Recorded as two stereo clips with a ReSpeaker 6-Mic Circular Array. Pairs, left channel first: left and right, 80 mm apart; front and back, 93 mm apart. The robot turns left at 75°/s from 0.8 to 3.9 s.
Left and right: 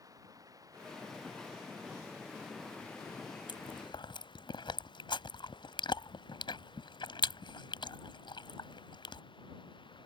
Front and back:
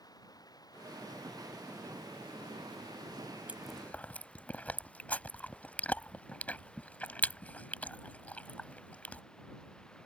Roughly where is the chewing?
Left.